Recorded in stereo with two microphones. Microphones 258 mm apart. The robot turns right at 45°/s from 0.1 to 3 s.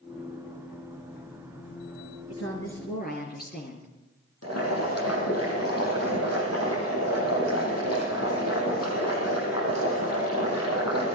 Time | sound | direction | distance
2.3 | a woman speaking | 110° left | 4.5 m
4.4 | boiling | 75° left (ahead or behind) | 8.5 m